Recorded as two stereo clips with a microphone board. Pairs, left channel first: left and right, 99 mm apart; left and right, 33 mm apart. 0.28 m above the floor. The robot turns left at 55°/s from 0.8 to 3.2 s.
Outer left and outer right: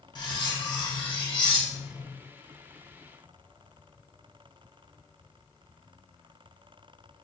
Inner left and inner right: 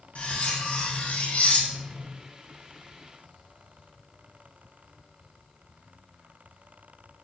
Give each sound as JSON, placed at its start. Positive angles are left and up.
{"t": 0.1, "sound": "cutlery clinking", "azimuth_deg": 120, "distance_m": 1.1}